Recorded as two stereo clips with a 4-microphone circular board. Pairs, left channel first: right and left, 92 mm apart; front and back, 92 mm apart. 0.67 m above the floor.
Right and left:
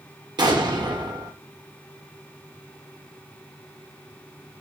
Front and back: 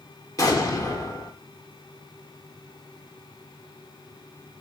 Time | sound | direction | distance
0.4 | an explosion | 50° left | 0.8 m